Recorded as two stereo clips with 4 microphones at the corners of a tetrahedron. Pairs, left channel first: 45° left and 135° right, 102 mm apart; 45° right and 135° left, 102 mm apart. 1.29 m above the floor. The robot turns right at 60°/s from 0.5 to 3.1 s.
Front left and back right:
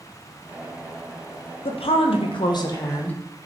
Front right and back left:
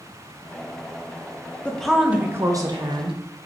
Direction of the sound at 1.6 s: 30° left.